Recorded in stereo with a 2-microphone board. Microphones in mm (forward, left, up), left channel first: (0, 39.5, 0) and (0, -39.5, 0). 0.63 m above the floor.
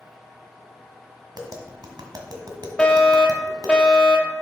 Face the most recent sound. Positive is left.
turn(degrees=15)  # may be behind; listen again after turning